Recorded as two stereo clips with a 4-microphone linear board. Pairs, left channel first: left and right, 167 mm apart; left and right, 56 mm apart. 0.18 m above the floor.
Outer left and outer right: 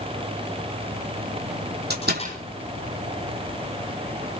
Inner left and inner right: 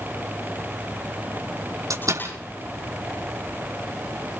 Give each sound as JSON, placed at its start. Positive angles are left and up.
{"t": 1.9, "sound": "a door slam", "side_deg": -75, "distance_m": 6.0}